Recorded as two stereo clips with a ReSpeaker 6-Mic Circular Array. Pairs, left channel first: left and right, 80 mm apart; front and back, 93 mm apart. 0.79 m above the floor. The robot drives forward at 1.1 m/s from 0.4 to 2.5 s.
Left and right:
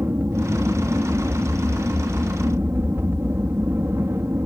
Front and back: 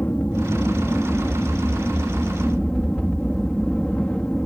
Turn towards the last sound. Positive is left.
turn(degrees=-70)